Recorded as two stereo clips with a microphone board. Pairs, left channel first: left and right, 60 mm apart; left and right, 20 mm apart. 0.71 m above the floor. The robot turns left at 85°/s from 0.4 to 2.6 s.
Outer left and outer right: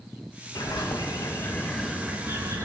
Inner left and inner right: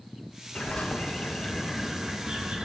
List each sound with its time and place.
0.6 s a bird: 115° left, 0.8 m; by 2.6 s 60° right, 0.8 m